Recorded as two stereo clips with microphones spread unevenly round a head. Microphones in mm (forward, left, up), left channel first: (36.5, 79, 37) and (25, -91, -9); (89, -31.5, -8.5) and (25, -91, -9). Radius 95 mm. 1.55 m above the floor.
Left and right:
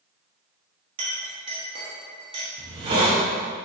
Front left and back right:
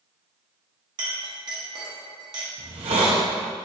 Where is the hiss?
155° right, 1.3 m.